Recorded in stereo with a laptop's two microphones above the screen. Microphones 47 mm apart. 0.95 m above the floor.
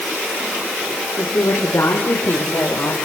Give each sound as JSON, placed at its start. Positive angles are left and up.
{"t": 1.2, "sound": "a woman speaking", "side_deg": 75, "distance_m": 3.5}